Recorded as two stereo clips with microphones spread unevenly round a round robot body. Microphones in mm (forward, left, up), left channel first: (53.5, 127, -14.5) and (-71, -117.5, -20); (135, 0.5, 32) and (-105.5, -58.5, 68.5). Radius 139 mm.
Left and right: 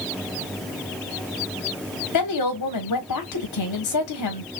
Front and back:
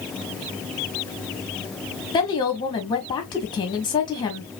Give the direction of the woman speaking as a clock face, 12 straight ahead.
9 o'clock.